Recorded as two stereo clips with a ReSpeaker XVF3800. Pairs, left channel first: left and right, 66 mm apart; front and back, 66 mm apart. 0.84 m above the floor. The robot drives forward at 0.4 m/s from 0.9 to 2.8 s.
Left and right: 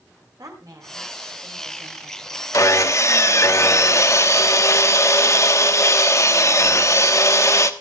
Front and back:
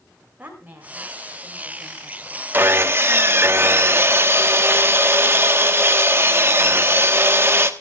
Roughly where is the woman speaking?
Behind right.